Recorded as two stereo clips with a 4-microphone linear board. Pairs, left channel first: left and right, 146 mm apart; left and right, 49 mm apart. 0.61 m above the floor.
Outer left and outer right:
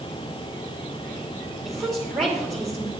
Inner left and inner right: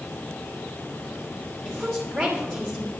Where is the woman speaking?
Centre (ahead or behind), 2.5 m.